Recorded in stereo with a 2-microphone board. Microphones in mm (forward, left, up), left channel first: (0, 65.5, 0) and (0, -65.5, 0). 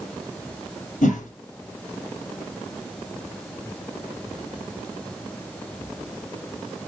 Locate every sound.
1.0 s a whoosh: 75° left (ahead or behind), 3 m